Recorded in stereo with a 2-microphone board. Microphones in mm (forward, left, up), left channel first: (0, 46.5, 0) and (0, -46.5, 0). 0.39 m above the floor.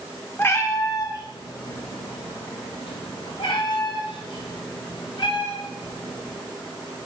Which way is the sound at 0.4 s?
25° left (ahead or behind).